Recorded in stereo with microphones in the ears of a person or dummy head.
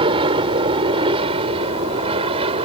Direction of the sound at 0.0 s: 30° right (ahead or behind).